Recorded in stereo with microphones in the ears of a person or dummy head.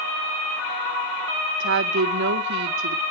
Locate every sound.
1.6 s a woman speaking: 65° right (ahead or behind), 0.6 m